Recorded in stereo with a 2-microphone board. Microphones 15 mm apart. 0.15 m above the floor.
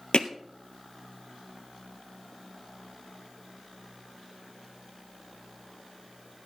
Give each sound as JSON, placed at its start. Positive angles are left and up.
{"t": 0.1, "sound": "hammering", "side_deg": 70, "distance_m": 1.5}